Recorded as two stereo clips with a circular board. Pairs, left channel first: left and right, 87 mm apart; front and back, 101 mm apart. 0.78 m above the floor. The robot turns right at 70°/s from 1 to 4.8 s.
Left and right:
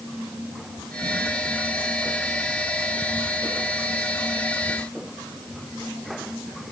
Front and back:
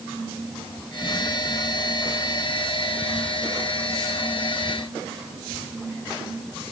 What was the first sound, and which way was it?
Only background noise.